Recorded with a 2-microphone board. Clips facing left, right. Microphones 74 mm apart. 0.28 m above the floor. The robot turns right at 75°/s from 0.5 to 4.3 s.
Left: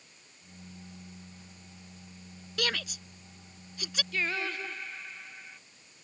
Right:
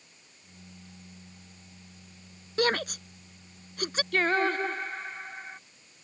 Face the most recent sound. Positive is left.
turn(degrees=-45)  # may be behind; listen again after turning